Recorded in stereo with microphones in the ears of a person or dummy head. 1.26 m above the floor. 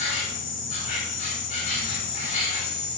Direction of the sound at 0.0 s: 40° left (ahead or behind).